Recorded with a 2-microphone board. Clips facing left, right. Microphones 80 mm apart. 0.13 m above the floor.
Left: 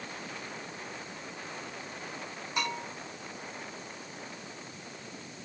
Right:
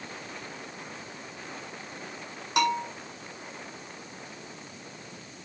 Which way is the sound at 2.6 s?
80° right.